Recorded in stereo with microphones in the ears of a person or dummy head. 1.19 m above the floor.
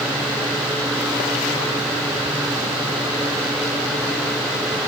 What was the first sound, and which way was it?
Only background noise.